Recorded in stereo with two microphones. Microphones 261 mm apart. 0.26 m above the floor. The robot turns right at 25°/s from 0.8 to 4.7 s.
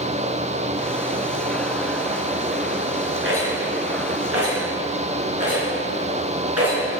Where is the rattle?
50° right (ahead or behind), 3.5 m; by 6.9 s 70° right (ahead or behind), 3.5 m.